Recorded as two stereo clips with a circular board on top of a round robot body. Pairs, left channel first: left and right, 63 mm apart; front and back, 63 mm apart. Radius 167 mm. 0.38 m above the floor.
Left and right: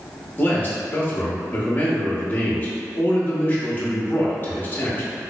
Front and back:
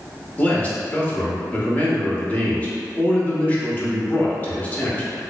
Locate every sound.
0.4 s a man speaking: 50° left, 1.0 m